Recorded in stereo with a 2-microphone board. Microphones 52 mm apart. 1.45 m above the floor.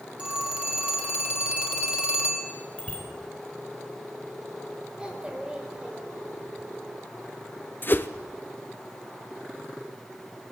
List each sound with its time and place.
0.2 s a phone ringing: 20° right (ahead or behind), 3.5 m
2.8 s a bicycle bell: 20° left (ahead or behind), 4.5 m
5.0 s a child speaking: 20° right (ahead or behind), 5 m
7.8 s a whoosh: 40° left (ahead or behind), 0.9 m